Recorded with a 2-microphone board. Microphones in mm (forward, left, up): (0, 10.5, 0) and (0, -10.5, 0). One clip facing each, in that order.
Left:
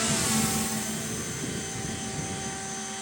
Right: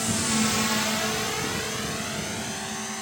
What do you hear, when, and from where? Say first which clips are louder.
0.0 s a drone: right 2 dB; 10° left (ahead or behind); by 3.0 s 65° right (ahead or behind)